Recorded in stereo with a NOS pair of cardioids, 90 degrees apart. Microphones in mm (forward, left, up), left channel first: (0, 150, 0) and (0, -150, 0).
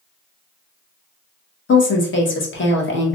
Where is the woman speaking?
40° left, 1.3 m.